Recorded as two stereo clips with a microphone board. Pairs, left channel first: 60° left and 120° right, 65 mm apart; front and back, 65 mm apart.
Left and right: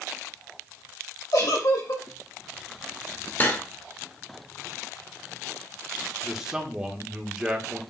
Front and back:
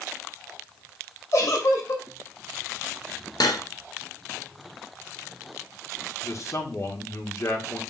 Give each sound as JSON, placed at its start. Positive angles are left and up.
{"t": 1.3, "sound": "a giggle", "azimuth_deg": 40, "distance_m": 3.5}
{"t": 3.4, "sound": "cutlery clinking", "azimuth_deg": 0, "distance_m": 1.3}
{"t": 6.2, "sound": "a man speaking", "azimuth_deg": -40, "distance_m": 1.7}